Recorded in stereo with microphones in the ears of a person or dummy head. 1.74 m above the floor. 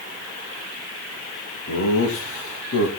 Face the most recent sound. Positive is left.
turn(degrees=70)  # may be behind; listen again after turning